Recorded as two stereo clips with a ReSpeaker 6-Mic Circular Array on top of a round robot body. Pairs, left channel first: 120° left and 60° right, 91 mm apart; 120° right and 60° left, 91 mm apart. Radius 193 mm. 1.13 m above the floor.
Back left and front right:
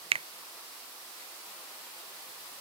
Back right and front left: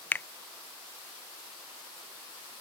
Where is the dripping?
No dripping in this recording.